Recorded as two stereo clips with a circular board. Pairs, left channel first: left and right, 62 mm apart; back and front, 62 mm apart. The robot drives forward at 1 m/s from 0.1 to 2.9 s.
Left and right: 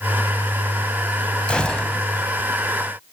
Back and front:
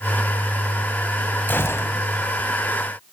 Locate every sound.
1.5 s a gunshot: 150° left, 0.8 m; by 2.0 s 165° left, 1.2 m